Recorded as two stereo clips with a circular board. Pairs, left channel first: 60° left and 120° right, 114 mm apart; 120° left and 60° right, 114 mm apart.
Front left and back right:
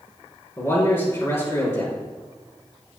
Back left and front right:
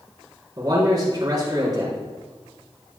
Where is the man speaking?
10° right, 4.5 m.